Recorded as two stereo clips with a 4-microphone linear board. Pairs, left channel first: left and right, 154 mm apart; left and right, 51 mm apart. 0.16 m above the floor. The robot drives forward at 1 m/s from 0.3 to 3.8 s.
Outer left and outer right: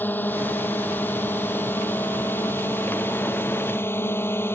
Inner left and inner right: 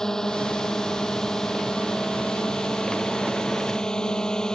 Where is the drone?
10° left (ahead or behind); by 4.5 s 15° left (ahead or behind).